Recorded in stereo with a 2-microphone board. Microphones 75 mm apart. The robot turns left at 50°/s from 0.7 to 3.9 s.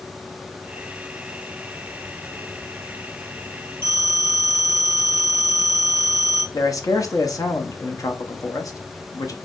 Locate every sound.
3.8 s a phone ringing: 75° left (ahead or behind), 2.5 m; by 6.4 s 80° left, 2.5 m
6.5 s a man speaking: 50° left (ahead or behind), 1.0 m